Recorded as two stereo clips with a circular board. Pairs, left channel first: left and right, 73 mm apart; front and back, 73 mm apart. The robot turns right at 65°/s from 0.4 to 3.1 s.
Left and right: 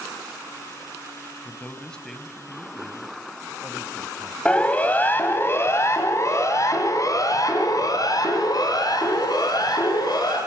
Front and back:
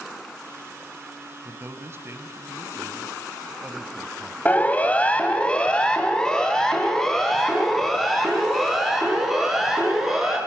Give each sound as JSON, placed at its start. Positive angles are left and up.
{"t": 1.4, "sound": "a man speaking", "azimuth_deg": 130, "distance_m": 1.2}
{"t": 4.5, "sound": "a siren", "azimuth_deg": 35, "distance_m": 2.0}